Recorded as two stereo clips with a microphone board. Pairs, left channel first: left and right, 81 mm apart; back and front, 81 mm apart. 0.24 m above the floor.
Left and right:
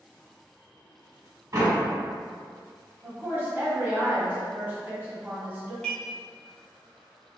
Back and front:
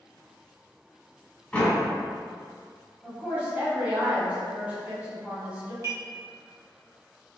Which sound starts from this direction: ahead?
Dishes clattering, at 5.8 s.